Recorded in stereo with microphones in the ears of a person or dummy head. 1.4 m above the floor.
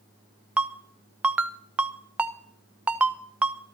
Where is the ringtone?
10° right (ahead or behind), 0.6 m.